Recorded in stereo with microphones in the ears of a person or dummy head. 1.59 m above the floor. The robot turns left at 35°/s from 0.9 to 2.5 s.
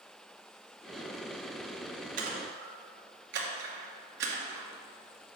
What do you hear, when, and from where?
2.2 s a splash: 50° right (ahead or behind), 2 m; by 4.7 s 60° right (ahead or behind), 2 m